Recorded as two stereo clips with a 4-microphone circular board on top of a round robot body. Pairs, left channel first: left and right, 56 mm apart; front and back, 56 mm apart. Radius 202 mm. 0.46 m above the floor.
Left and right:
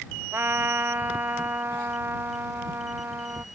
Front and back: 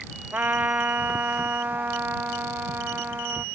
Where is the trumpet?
130° right.